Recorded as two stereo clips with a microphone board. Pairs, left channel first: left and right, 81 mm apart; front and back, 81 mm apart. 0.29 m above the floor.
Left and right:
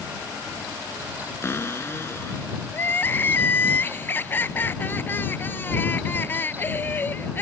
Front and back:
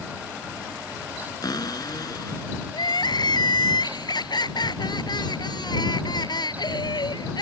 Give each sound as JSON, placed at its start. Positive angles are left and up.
{"t": 1.4, "sound": "a cupboard door", "azimuth_deg": 35}
{"t": 2.7, "sound": "crying", "azimuth_deg": 25}